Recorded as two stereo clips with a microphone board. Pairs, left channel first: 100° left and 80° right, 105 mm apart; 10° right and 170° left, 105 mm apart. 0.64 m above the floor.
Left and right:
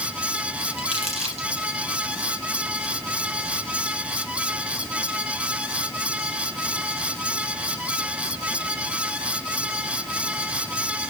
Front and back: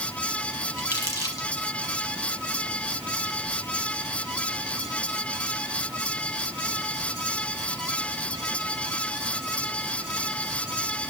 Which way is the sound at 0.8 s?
75° right.